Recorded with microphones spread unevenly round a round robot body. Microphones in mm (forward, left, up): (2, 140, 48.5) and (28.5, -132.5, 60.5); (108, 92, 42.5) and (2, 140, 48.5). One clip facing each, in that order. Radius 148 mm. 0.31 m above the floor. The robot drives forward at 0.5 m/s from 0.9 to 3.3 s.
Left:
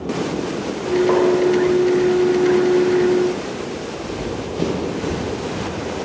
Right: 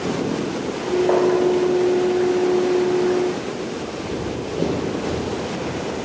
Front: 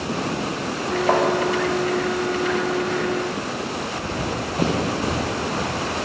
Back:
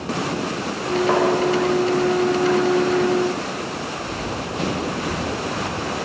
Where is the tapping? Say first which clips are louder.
Left 1 dB, even; 30° left, 2.0 m.